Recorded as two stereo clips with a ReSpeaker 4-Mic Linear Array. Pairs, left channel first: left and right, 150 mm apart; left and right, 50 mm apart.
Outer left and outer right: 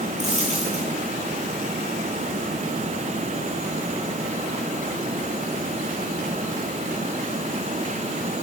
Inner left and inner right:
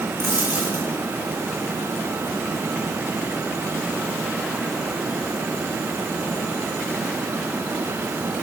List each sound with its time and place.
0.2 s a dropped coin: 50° right (ahead or behind), 10 m